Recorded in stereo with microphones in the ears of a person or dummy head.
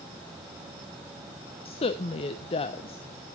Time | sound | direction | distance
1.6 | a woman speaking | 30° left (ahead or behind) | 0.6 m